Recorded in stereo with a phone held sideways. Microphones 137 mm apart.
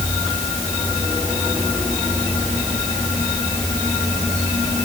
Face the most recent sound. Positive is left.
No sound to turn to.